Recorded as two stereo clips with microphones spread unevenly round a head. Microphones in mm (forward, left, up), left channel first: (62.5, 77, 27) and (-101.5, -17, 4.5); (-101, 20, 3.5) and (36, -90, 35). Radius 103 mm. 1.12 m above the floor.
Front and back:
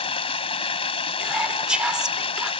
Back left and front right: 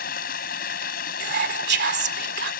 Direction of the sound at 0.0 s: 90° left.